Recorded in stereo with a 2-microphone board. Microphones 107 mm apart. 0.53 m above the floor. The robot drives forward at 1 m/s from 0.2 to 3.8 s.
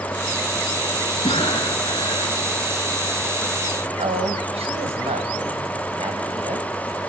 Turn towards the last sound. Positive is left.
turn(degrees=-75)  # may be behind; listen again after turning